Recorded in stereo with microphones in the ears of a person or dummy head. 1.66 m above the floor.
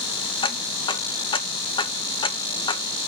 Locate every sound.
0.4 s ticking: 30° left (ahead or behind), 0.9 m